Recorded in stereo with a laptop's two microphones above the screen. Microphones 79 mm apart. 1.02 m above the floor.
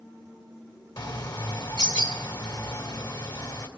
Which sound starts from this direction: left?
A bird, at 1.0 s.